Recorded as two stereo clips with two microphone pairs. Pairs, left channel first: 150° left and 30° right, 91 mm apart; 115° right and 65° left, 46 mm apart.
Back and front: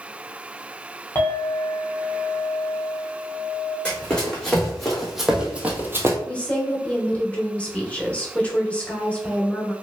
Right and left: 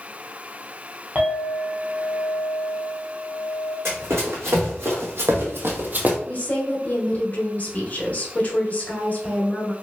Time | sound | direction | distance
1.1 | a clink | 105° left | 1.0 m
3.9 | running footsteps | 70° left | 1.5 m
6.3 | a woman speaking | 145° right | 0.9 m